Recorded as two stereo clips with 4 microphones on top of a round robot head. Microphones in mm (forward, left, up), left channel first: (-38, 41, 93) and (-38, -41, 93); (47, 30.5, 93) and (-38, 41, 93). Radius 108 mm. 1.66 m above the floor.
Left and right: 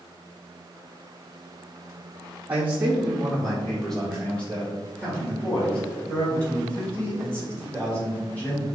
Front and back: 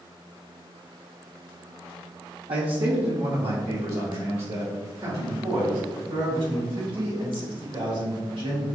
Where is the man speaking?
160° right, 0.6 m; by 8.6 s 160° left, 4.5 m.